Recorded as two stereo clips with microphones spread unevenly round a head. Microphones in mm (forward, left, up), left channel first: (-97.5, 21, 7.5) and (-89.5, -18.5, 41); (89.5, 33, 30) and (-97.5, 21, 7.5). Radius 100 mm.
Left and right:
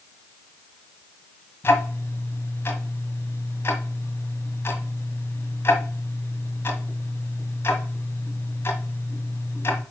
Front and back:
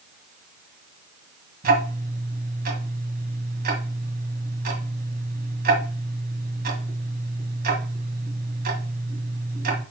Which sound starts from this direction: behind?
Ticking, at 1.6 s.